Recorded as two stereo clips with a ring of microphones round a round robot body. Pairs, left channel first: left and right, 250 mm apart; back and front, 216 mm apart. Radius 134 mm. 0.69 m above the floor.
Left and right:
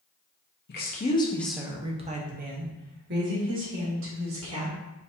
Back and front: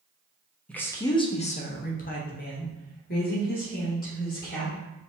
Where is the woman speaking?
95° left, 0.7 m; by 4.8 s 125° right, 2.5 m.